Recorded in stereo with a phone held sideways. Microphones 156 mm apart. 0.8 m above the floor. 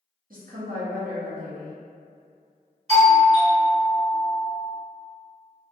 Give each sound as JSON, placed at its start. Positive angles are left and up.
{"t": 0.3, "sound": "a woman speaking", "side_deg": -60, "distance_m": 1.0}
{"t": 2.9, "sound": "a doorbell", "side_deg": -40, "distance_m": 1.0}